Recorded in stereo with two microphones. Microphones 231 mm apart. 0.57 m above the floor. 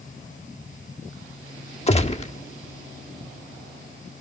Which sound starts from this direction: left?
A gunshot, at 1.9 s.